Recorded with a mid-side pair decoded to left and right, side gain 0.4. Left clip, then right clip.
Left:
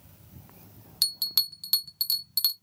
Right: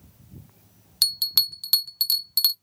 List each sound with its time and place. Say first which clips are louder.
1.0 s a bell: right 5 dB; 35° right, 0.5 m